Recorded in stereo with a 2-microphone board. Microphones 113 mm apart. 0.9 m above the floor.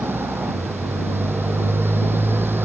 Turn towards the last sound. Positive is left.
turn(degrees=-20)  # may be behind; listen again after turning